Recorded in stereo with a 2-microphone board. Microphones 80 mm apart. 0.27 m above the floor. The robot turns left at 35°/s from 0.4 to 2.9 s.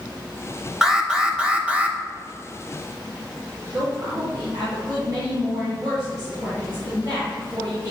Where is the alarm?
5° right (ahead or behind), 0.6 m; by 2.0 s 15° right (ahead or behind), 0.6 m.